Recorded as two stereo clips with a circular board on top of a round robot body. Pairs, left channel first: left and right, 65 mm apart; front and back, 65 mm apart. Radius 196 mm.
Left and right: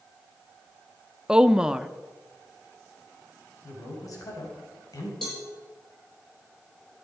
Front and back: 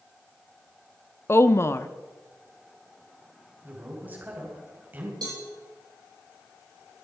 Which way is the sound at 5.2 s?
Straight behind.